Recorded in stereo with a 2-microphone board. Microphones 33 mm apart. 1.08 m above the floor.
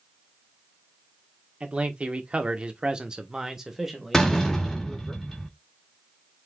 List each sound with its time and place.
1.6 s a man speaking: 35° right (ahead or behind), 1.2 m; by 5.1 s 5° left (ahead or behind), 1.8 m
4.1 s a door slam: 15° left (ahead or behind), 1.3 m